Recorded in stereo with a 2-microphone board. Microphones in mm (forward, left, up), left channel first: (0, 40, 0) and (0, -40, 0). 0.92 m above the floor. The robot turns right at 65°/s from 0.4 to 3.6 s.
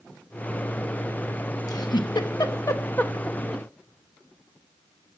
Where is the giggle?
55° left (ahead or behind), 1.2 m; by 3.6 s 10° right (ahead or behind), 1.2 m.